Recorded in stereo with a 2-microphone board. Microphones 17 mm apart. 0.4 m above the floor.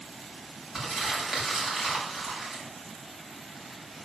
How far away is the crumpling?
About 3 m.